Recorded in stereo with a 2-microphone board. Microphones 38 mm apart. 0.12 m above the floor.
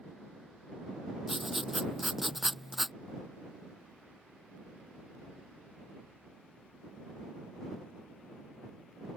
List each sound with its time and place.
1.3 s writing: 5° right (ahead or behind)